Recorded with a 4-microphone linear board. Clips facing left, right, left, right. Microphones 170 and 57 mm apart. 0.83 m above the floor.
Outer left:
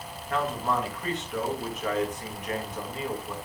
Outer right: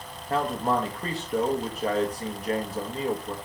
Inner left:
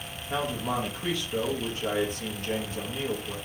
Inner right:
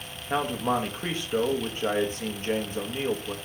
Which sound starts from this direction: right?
A man speaking, at 0.3 s.